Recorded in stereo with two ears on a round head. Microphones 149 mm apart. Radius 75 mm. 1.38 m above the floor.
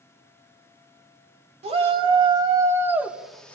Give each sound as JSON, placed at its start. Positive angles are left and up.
{"t": 1.6, "sound": "a shout", "side_deg": -35, "distance_m": 2.5}